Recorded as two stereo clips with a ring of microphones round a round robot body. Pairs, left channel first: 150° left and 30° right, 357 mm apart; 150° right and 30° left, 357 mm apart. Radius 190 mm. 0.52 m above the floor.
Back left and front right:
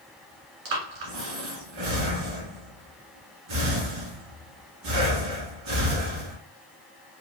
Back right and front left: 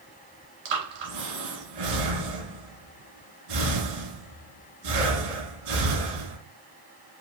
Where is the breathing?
10° left, 1.8 m.